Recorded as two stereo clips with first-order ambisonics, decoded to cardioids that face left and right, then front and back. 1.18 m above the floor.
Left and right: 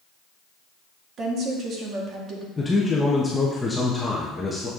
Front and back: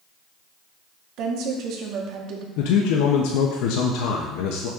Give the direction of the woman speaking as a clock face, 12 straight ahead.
5 o'clock.